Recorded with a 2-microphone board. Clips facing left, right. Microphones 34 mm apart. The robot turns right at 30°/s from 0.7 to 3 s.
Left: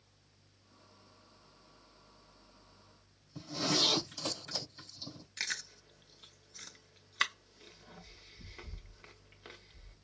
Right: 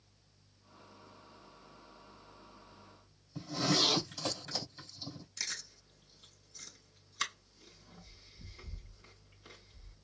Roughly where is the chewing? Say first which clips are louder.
Left 5 dB; left.